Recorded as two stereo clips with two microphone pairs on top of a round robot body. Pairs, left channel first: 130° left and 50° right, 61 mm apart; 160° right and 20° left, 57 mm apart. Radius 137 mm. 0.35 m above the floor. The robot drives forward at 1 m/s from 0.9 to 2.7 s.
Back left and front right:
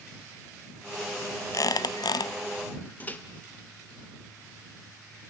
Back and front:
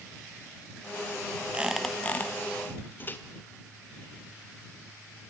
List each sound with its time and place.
1.5 s a squeak: 90° left, 0.6 m; by 2.3 s 140° left, 1.0 m
3.0 s a microwave: 170° left, 1.7 m